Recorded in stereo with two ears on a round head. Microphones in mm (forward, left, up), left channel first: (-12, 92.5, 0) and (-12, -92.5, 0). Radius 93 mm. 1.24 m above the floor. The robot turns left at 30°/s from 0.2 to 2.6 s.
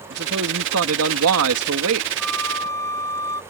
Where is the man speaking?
50° right; by 2.1 s 110° right.